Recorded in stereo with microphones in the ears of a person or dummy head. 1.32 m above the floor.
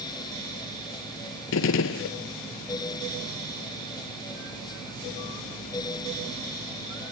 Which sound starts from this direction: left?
A gunshot, at 1.5 s.